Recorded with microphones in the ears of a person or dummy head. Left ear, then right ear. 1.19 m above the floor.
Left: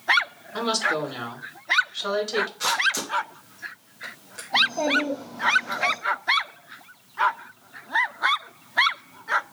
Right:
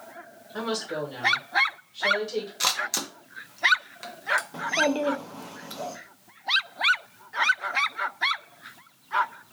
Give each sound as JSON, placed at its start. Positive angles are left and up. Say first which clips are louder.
{"t": 0.5, "sound": "a woman speaking", "louder": "left 6 dB", "side_deg": 20, "distance_m": 1.8}
{"t": 2.6, "sound": "a camera shutter", "louder": "left 1 dB", "side_deg": -60, "distance_m": 0.8}
{"t": 4.5, "sound": "a child speaking", "louder": "left 4 dB", "side_deg": -45, "distance_m": 0.7}